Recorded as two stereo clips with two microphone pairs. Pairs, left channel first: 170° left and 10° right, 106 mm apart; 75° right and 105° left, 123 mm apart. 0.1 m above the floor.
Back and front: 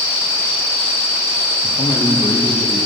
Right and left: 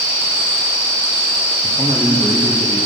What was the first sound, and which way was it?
A man speaking, 155° right.